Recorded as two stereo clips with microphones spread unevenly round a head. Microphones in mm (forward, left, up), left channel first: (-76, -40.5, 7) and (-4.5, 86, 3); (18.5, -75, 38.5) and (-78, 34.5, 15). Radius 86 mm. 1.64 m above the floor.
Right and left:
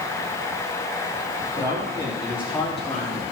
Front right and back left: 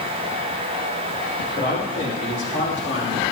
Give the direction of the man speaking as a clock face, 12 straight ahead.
12 o'clock.